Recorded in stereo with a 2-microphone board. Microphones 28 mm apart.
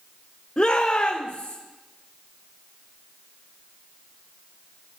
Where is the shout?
60° left (ahead or behind), 0.9 m; by 1.6 s 80° left, 2.0 m.